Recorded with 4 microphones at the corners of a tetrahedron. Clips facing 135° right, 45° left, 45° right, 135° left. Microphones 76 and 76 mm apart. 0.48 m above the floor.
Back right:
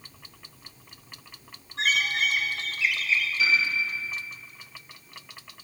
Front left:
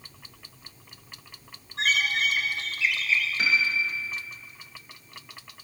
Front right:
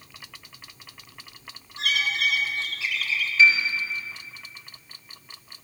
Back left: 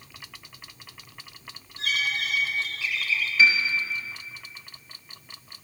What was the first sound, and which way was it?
A bird, 45° right.